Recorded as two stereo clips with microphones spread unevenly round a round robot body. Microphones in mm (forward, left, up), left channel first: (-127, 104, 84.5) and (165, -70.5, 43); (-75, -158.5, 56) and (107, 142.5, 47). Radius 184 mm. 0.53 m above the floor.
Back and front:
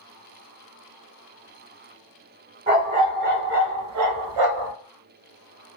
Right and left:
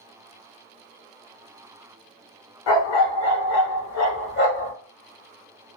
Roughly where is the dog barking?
Right.